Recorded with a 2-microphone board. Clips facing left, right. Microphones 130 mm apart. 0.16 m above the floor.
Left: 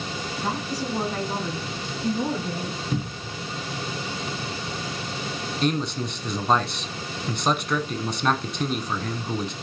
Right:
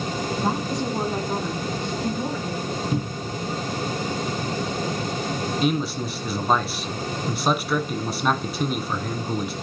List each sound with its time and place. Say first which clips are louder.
0.4 s a woman speaking: right 2 dB; 30° right (ahead or behind), 1.9 m; by 2.8 s 25° left (ahead or behind), 3 m
2.9 s a cupboard door: right 3 dB; 10° right (ahead or behind), 0.5 m
5.6 s a man speaking: even; 5° right (ahead or behind), 1.1 m